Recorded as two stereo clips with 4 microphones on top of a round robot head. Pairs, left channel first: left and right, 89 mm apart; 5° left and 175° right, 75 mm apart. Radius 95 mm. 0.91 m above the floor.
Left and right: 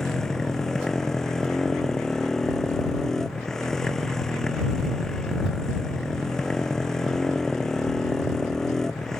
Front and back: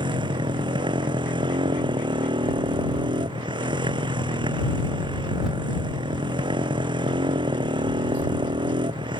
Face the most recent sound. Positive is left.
turn(degrees=175)